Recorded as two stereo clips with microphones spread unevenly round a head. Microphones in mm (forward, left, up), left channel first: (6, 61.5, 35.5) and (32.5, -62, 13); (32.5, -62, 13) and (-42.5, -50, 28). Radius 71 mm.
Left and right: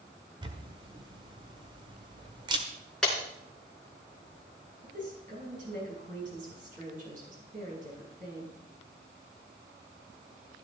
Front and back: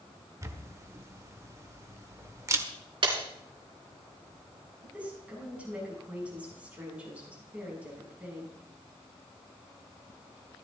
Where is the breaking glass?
175° right, 3.5 m.